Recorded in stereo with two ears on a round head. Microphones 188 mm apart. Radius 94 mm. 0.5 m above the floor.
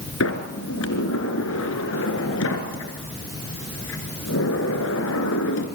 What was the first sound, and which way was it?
A sliding door, 70° left (ahead or behind).